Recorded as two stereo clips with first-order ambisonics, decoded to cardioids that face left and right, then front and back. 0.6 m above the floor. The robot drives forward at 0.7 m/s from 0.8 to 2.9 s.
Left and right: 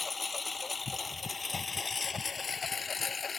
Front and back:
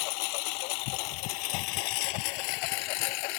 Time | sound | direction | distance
0.0 | a lawn mower | 10° left | ?